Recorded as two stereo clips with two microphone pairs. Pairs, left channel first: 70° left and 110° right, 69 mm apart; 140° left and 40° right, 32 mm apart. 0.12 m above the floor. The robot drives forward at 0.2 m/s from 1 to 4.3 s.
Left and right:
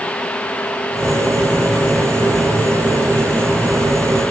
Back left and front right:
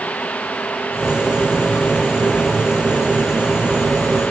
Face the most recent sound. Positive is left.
No sound to turn to.